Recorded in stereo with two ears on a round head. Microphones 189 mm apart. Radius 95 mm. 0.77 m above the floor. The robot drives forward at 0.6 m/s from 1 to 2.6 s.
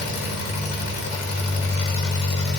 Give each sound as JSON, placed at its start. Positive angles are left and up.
{"t": 0.0, "sound": "an engine running", "side_deg": 70, "distance_m": 0.9}